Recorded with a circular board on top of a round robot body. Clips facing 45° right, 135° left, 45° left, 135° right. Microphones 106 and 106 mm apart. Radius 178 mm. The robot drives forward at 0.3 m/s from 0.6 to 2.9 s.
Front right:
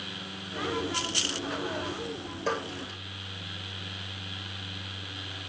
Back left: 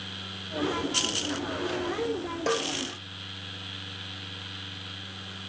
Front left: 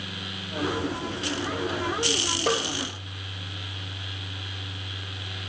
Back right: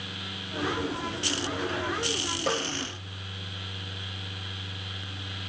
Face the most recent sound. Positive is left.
turn(degrees=125)